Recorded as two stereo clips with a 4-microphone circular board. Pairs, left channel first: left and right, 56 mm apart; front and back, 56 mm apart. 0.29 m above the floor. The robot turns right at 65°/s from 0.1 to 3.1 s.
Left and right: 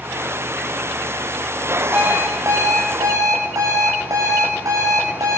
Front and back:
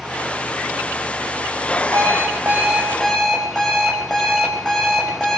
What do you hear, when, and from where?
1.9 s an alarm clock: 155° right, 9 m; by 5.4 s 80° right, 9 m